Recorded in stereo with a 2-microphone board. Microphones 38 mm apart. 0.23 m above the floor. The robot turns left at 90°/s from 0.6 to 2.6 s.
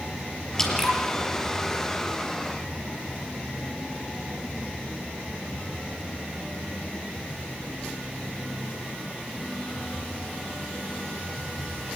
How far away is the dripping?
About 4.5 m.